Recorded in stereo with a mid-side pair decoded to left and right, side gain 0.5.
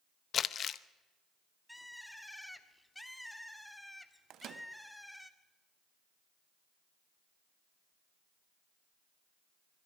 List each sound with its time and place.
0.3 s crumpling: 50° left, 0.8 m
1.7 s a bird: 5° left, 1.7 m
4.3 s a microwave: 65° right, 1.4 m